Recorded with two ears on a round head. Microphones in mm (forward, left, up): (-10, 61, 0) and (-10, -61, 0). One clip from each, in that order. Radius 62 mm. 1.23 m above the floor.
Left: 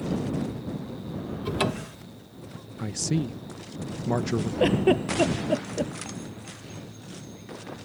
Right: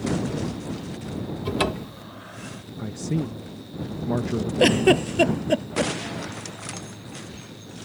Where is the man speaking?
65° left (ahead or behind).